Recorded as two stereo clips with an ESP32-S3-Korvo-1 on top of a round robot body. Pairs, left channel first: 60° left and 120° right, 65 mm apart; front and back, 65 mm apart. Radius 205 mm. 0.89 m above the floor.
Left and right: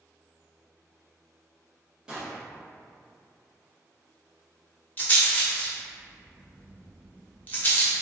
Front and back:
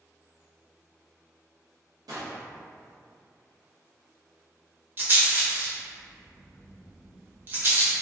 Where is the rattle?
125° left, 0.8 m.